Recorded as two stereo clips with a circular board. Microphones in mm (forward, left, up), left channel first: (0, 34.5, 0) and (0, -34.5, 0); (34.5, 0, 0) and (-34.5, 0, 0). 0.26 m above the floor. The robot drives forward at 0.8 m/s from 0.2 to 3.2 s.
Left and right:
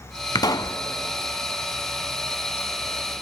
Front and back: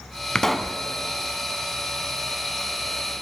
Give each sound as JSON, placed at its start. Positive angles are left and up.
{"t": 0.3, "sound": "a pop", "azimuth_deg": 80, "distance_m": 0.8}